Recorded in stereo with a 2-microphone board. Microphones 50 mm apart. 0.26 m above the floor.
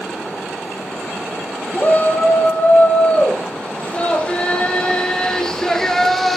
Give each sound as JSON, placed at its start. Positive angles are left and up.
{"t": 1.7, "sound": "a shout", "side_deg": 30, "distance_m": 8.5}